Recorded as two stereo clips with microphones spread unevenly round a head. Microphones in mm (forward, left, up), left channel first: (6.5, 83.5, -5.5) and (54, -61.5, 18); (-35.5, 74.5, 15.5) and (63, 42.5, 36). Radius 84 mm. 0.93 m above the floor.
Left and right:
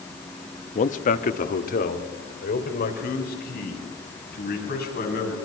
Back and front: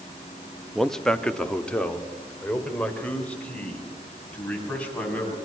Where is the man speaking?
80° left, 1.1 m; by 5.3 s 85° left, 7.5 m.